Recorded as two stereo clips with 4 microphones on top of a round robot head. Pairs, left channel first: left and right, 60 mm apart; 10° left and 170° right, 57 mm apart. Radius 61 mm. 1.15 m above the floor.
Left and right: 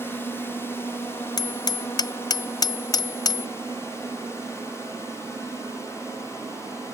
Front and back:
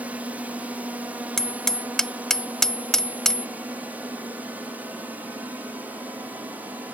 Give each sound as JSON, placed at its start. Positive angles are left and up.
{"t": 0.0, "sound": "a drone", "azimuth_deg": 135}
{"t": 1.4, "sound": "hammering", "azimuth_deg": 95}